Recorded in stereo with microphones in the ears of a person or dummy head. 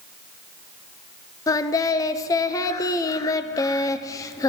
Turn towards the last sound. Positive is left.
turn(degrees=15)  # may be behind; listen again after turning